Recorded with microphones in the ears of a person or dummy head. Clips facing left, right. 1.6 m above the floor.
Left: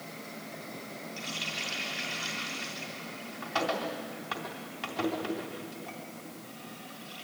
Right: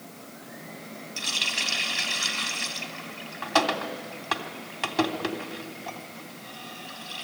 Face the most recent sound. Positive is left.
turn(degrees=-65)  # may be behind; listen again after turning